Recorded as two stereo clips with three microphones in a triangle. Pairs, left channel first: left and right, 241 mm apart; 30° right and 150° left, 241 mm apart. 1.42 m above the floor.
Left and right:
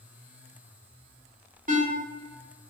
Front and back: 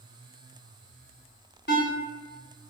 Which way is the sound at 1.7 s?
45° right.